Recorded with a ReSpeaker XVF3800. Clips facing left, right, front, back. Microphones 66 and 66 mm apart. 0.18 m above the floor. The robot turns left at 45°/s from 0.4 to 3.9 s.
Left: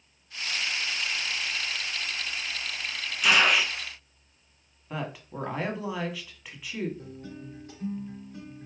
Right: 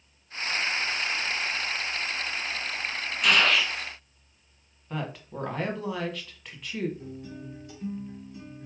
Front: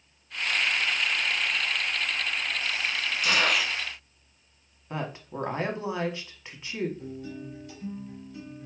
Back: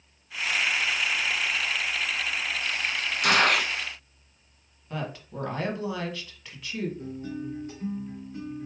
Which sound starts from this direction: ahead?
A woman speaking, at 4.9 s.